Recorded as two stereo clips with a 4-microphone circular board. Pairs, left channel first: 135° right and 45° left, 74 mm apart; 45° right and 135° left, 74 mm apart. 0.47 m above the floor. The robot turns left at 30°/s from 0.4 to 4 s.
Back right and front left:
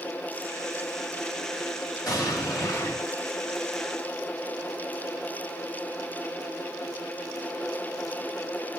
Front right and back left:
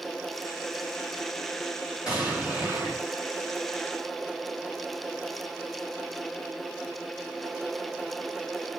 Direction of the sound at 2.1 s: 145° right.